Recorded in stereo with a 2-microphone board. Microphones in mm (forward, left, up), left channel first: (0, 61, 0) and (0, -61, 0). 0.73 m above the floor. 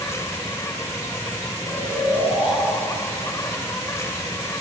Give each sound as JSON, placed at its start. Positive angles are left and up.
{"t": 0.0, "sound": "an insect", "side_deg": 25, "distance_m": 0.9}
{"t": 1.6, "sound": "snoring", "side_deg": -15, "distance_m": 7.5}